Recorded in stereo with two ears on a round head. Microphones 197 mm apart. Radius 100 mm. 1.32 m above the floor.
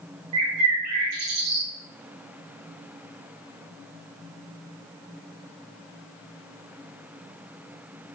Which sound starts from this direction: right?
A bird, at 0.3 s.